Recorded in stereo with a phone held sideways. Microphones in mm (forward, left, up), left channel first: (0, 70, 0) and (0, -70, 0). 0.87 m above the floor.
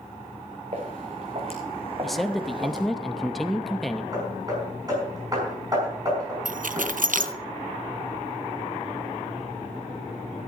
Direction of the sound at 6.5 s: 70° right (ahead or behind).